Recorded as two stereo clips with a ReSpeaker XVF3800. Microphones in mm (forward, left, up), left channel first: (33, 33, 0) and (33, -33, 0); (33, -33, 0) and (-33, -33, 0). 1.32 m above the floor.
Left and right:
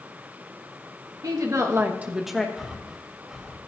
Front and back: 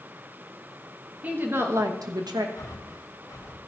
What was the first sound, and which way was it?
A woman speaking, 115° right.